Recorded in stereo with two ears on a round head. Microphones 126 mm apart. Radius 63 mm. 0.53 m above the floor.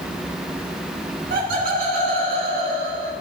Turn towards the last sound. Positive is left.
turn(degrees=-55)  # may be behind; listen again after turning